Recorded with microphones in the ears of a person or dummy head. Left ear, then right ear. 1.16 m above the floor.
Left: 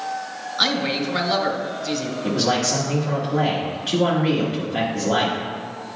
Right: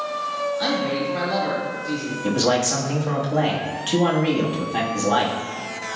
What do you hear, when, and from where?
0.6 s a man speaking: 50° left (ahead or behind), 1.4 m
2.2 s a man speaking: 30° right (ahead or behind), 1.6 m